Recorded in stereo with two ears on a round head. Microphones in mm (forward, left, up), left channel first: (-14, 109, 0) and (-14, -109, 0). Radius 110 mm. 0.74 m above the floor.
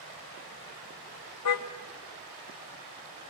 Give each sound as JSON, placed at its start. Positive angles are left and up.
{"t": 1.4, "sound": "a car horn", "side_deg": 70, "distance_m": 2.0}